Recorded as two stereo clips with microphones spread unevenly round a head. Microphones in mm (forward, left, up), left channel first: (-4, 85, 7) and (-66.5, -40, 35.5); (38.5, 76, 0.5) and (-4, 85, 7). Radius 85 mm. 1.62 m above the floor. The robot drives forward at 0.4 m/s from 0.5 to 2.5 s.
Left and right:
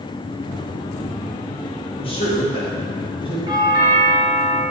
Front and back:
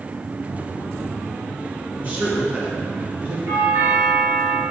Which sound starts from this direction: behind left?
A man speaking, at 2.0 s.